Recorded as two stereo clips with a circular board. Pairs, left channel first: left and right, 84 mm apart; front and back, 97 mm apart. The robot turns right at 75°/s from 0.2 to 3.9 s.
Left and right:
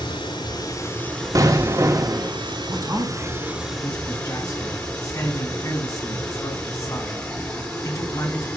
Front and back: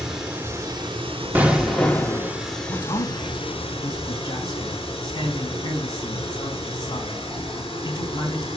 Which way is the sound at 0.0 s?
100° left.